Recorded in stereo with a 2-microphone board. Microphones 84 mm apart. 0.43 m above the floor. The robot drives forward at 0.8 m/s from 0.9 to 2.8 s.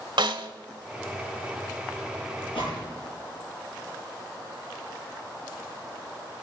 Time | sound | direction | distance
0.2 | a snare drum | 75° right (ahead or behind) | 0.8 m
2.5 | a gunshot | 75° left (ahead or behind) | 9 m